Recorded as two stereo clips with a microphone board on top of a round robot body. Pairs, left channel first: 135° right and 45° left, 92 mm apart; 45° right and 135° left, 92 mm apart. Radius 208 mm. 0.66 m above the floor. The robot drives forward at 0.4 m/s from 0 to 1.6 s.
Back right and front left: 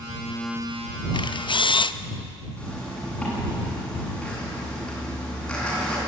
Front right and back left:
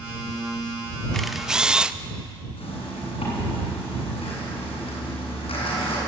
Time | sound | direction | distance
1.1 | a camera shutter | 130° right | 0.7 m
2.6 | a zipper | 55° right | 8 m